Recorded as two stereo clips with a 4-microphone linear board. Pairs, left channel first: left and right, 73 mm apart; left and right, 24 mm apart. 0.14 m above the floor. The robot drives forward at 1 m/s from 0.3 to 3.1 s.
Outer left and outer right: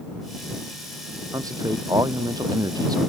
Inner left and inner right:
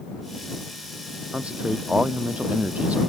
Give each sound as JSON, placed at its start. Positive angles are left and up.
{"t": 1.3, "sound": "a man speaking", "side_deg": -55}